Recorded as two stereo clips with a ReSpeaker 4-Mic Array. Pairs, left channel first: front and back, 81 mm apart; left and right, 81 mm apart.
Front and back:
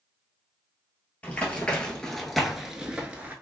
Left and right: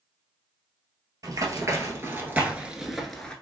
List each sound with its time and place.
1.2 s running footsteps: 70° right, 1.1 m; by 3.3 s 155° left, 0.8 m